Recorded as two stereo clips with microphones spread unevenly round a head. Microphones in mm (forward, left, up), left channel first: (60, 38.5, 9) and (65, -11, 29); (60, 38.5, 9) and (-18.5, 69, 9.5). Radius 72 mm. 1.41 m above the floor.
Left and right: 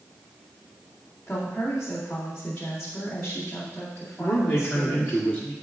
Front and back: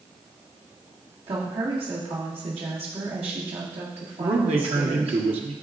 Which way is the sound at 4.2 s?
170° left.